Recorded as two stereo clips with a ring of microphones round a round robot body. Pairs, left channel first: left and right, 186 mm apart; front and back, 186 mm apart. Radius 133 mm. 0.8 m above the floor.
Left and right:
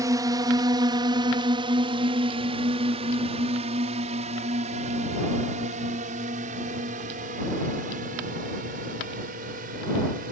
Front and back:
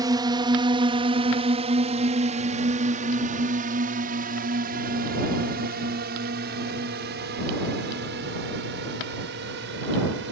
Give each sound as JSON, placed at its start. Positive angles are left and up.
{"t": 0.0, "sound": "a drone", "azimuth_deg": -140}